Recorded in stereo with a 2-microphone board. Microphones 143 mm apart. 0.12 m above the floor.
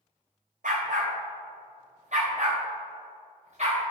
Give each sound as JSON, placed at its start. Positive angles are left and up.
{"t": 0.6, "sound": "a dog barking", "side_deg": -70, "distance_m": 2.5}